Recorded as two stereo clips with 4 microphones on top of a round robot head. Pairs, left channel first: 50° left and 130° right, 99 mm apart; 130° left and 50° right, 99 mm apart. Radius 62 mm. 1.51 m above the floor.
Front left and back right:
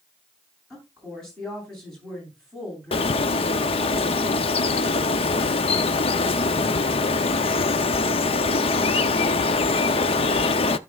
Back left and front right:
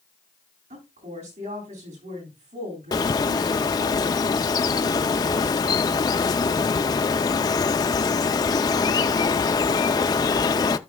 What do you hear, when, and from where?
0.7 s a woman speaking: 35° right, 9.5 m
2.9 s a bird: 80° left, 0.6 m